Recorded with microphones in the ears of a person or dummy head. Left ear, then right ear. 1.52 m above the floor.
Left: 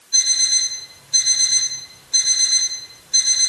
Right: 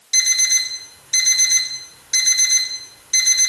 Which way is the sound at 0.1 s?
50° right (ahead or behind).